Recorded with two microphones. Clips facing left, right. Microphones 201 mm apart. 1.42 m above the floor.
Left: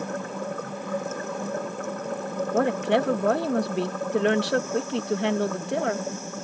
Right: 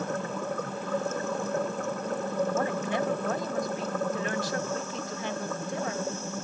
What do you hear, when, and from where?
2.5 s a woman speaking: 70° left (ahead or behind)